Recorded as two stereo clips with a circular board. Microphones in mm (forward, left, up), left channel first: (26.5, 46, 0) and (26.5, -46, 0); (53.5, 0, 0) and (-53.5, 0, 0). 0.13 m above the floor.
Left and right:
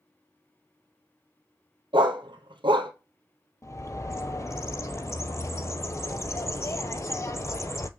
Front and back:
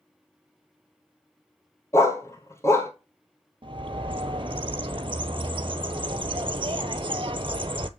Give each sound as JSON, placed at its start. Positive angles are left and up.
{"t": 1.9, "sound": "a dog barking", "azimuth_deg": -65, "distance_m": 1.3}
{"t": 3.6, "sound": "a bird", "azimuth_deg": 145, "distance_m": 0.6}